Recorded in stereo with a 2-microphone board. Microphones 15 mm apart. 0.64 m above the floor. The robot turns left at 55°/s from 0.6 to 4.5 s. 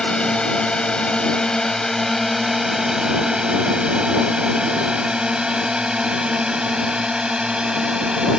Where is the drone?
65° left (ahead or behind); by 8.4 s 65° right (ahead or behind).